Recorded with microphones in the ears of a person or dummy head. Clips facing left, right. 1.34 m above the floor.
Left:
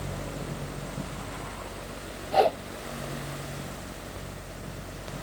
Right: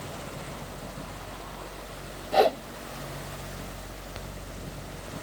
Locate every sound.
2.3 s a whoosh: 15° right (ahead or behind)